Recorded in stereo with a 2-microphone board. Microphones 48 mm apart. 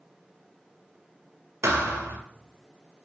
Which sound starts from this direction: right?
A thud, at 1.6 s.